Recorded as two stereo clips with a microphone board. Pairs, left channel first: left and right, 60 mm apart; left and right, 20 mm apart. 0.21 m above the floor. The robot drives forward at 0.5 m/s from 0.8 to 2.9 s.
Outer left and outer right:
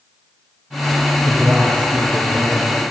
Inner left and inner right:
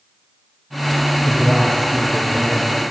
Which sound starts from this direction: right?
A man speaking, at 1.2 s.